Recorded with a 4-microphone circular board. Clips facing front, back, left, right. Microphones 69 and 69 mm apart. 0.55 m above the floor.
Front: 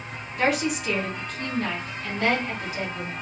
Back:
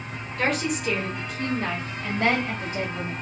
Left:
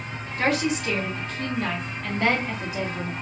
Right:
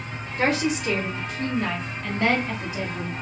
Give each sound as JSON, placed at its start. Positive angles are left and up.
{"t": 0.4, "sound": "a woman speaking", "azimuth_deg": -70, "distance_m": 1.3}